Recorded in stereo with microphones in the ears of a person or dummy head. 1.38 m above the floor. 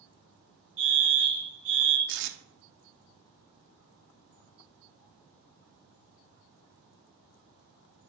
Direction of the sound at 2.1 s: 65° right (ahead or behind).